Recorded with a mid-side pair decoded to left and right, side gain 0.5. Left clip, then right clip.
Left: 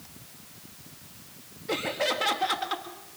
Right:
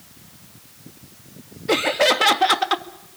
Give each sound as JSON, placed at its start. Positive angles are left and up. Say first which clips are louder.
{"t": 1.7, "sound": "laughter", "louder": "right 10 dB", "azimuth_deg": -55, "distance_m": 1.7}